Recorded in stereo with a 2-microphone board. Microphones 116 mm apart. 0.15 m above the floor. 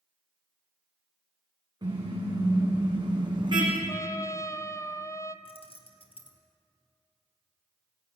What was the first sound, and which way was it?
A car horn, 35° right (ahead or behind).